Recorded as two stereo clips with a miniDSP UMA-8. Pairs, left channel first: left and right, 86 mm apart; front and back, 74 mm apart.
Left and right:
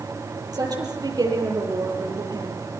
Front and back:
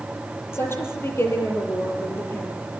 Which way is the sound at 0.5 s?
55° right.